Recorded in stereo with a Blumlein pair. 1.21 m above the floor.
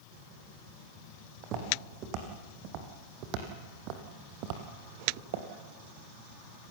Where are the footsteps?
35° right, 4.5 m; by 5.5 s 50° right, 2 m.